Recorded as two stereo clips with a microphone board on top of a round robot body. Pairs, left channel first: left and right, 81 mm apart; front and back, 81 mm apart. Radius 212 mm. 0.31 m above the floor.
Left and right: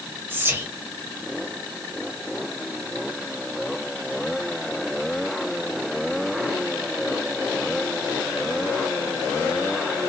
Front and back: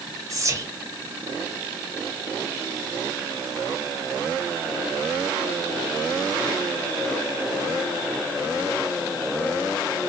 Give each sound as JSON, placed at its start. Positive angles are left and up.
{"t": 0.3, "sound": "whispering", "azimuth_deg": -145, "distance_m": 1.1}